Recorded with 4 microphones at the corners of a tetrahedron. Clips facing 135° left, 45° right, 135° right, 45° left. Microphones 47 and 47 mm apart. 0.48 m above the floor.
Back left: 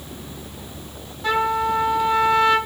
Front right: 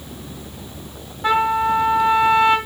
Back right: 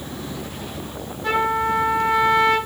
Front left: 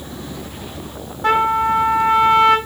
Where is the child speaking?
No child speaking in this recording.